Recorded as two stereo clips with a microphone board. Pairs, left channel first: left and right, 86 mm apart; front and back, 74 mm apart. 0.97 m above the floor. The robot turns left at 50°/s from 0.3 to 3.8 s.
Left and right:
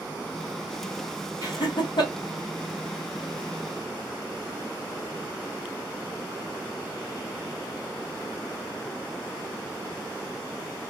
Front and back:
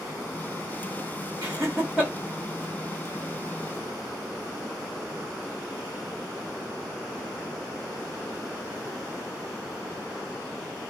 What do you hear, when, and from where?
1.4 s laughter: 135° left, 1.0 m; by 2.1 s 100° left, 1.0 m